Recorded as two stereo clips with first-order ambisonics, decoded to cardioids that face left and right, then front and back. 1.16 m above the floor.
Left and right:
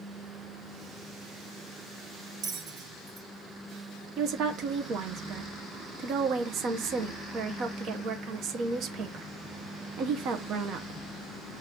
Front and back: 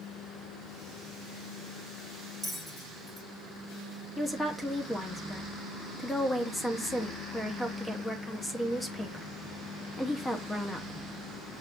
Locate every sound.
2.4 s a bell: 70° right, 0.9 m
4.2 s a woman speaking: 70° right, 0.6 m